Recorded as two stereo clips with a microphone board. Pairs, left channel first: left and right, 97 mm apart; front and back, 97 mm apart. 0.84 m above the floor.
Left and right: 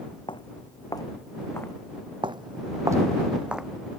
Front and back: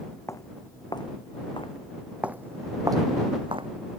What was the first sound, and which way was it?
Footsteps, 60° left.